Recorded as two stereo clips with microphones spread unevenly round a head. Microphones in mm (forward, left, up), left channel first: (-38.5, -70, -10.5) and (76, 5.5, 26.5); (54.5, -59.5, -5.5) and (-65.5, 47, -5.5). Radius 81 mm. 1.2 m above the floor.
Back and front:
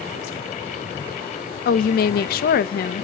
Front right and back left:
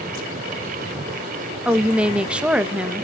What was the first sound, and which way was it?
A woman speaking, 140° right.